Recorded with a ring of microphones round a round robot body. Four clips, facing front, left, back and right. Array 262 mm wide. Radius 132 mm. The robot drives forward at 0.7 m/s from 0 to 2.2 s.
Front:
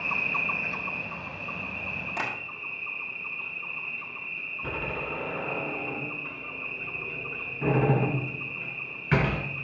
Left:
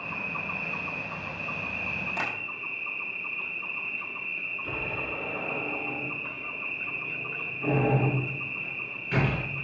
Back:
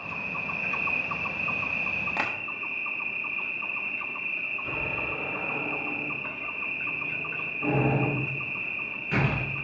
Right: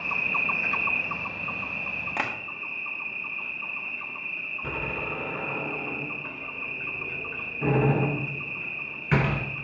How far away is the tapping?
About 1.7 m.